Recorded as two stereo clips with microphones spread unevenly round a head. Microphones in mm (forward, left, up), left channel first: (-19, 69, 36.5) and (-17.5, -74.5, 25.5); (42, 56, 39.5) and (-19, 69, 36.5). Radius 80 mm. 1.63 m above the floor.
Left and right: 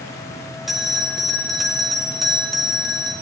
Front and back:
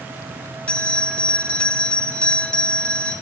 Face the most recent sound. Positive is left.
turn(degrees=10)